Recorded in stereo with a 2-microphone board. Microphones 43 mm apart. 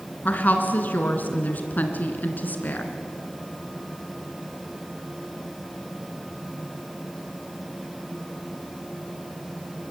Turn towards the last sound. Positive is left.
turn(degrees=45)  # may be behind; listen again after turning